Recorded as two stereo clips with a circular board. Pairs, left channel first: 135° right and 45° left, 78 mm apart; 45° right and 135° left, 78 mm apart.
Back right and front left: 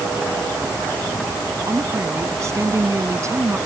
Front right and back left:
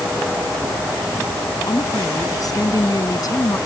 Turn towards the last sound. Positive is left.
turn(degrees=-5)